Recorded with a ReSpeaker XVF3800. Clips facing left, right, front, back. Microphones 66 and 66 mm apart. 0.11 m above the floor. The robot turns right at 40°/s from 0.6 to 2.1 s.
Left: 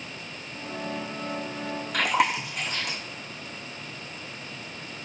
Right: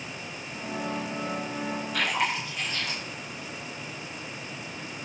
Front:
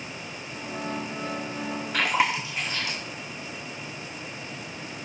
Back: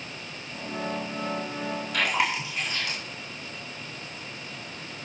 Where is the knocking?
No knocking in this recording.